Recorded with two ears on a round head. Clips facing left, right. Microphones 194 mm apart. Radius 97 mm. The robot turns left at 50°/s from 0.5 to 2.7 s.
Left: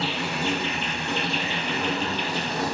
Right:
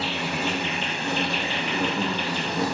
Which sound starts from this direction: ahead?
An insect, at 0.0 s.